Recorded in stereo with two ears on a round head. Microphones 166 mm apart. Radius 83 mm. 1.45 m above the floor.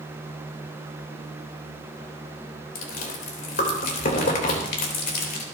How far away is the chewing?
About 3 m.